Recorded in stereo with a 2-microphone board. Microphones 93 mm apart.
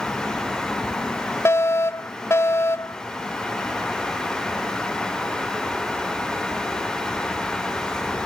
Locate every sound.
1.4 s a fire alarm: 30° left (ahead or behind)